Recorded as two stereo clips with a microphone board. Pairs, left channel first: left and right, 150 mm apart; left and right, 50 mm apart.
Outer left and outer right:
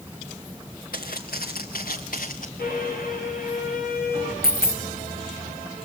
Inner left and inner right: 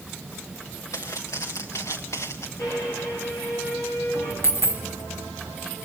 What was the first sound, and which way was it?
Footsteps, 85° left.